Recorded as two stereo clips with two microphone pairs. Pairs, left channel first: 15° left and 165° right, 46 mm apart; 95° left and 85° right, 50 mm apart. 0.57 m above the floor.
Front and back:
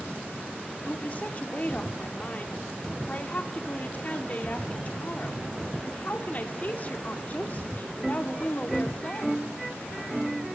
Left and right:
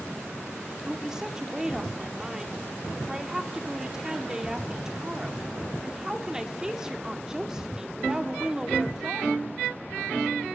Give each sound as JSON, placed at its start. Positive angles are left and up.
{"t": 0.8, "sound": "a woman speaking", "azimuth_deg": -10, "distance_m": 1.6}